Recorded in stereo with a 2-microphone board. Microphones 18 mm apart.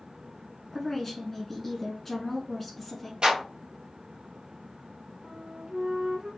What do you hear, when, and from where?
0.7 s a woman speaking: 10° left (ahead or behind), 1.2 m
3.2 s a clap: 45° right (ahead or behind), 3 m
5.2 s a flute: 40° right (ahead or behind), 2.5 m